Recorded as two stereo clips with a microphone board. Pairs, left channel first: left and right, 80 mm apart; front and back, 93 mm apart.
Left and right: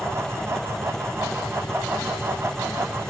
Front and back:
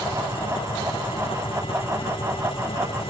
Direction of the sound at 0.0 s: 10° left.